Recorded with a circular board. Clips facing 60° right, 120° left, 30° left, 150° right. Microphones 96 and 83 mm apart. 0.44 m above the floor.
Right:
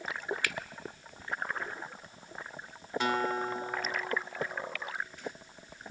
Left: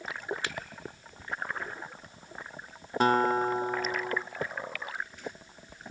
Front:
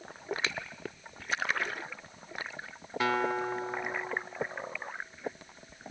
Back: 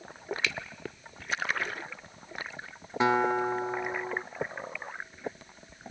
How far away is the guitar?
About 0.8 m.